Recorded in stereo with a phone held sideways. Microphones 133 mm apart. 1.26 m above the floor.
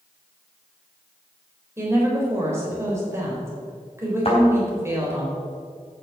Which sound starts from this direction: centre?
A woman speaking, at 1.8 s.